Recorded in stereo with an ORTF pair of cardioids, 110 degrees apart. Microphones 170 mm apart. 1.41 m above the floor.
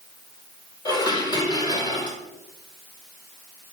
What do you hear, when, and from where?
0.8 s dishes clattering: 25° left, 5 m